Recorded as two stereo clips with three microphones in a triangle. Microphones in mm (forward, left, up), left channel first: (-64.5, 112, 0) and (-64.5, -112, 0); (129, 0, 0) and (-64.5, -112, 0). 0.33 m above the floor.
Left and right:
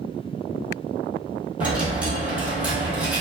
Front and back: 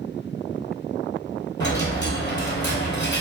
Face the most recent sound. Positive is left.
turn(degrees=-10)